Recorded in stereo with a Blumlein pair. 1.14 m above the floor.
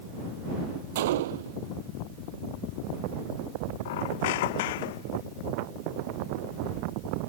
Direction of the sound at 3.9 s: 50° left.